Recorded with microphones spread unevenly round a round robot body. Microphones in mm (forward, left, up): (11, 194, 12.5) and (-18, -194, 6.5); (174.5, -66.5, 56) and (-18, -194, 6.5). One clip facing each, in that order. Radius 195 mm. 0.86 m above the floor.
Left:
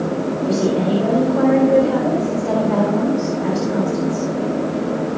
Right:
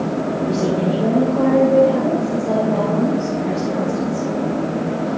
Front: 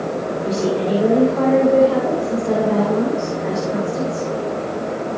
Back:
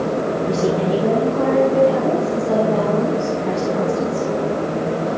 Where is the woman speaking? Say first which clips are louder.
Left 2 dB, front 1 dB; 45° left, 3.5 m.